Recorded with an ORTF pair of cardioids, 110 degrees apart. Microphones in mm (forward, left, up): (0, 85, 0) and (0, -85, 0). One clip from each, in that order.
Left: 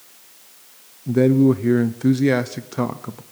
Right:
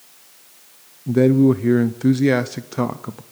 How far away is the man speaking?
About 0.7 m.